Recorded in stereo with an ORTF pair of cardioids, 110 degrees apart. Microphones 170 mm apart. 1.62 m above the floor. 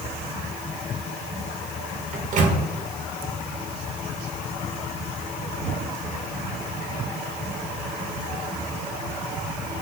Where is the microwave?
50° right, 0.7 m.